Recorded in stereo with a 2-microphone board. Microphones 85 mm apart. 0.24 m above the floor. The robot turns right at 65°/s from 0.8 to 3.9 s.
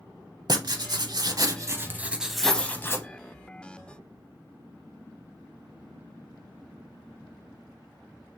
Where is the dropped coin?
80° right, 2 m; by 2.8 s 75° right (ahead or behind), 2 m.